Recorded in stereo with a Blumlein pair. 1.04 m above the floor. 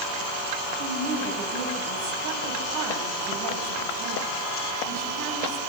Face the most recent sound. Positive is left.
turn(degrees=-50)